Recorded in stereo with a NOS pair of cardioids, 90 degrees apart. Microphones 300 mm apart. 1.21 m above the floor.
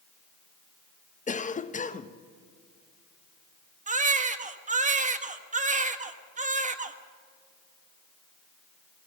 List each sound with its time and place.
1.3 s a cough: 25° left, 1.2 m
3.9 s a baby crying: 25° right, 1.3 m